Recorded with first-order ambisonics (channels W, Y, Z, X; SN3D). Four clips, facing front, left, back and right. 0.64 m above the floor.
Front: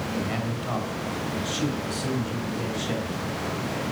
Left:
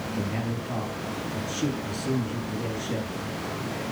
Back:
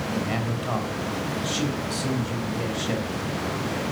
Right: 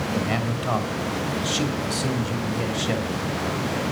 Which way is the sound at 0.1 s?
100° right.